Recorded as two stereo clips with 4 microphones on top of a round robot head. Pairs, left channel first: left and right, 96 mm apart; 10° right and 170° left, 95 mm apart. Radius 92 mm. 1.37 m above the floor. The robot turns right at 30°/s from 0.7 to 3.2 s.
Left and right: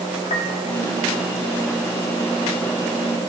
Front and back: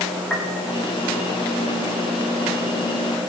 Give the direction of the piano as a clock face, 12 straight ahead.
10 o'clock.